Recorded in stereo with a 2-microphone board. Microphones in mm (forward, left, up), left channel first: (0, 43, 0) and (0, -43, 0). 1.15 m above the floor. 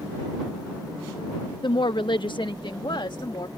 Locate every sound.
1.6 s a woman speaking: 65° left (ahead or behind)